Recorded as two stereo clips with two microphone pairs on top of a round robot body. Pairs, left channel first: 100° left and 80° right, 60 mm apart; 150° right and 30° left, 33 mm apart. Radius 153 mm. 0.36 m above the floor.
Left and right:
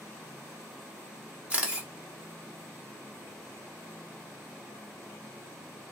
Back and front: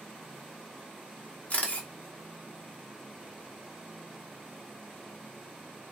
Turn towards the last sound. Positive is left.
turn(degrees=-135)